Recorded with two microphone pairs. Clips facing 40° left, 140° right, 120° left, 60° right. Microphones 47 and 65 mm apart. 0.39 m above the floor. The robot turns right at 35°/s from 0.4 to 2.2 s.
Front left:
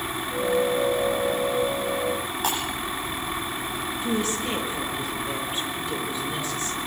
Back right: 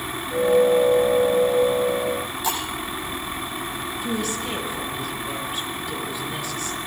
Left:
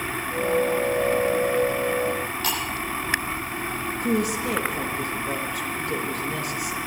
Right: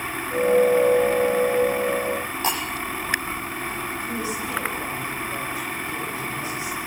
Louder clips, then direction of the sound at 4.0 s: Front left 1 dB, left 4 dB; 110° left.